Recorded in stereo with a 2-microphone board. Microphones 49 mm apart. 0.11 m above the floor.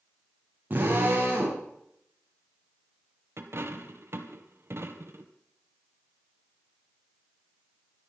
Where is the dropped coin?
60° right (ahead or behind), 1.7 m.